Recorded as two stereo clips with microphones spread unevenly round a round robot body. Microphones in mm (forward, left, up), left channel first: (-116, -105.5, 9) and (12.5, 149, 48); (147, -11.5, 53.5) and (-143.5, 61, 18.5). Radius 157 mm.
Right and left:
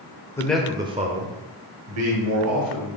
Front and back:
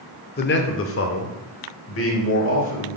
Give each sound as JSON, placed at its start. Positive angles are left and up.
{"t": 0.4, "sound": "a man speaking", "azimuth_deg": -55, "distance_m": 0.9}